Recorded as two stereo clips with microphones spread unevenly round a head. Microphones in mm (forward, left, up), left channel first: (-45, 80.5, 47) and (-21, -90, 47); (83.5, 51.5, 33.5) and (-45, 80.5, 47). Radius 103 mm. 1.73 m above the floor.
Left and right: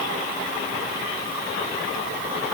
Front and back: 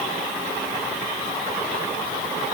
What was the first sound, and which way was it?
Only background noise.